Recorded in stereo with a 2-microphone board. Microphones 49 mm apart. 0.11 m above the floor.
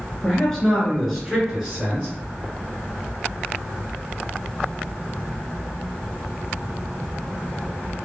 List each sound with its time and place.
0.2 s a man speaking: 15° left (ahead or behind), 1.4 m; by 2.1 s 25° right (ahead or behind), 1.5 m